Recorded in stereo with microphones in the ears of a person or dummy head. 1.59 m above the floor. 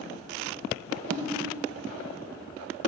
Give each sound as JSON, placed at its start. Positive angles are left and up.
{"t": 1.1, "sound": "a whoosh", "side_deg": -55, "distance_m": 1.0}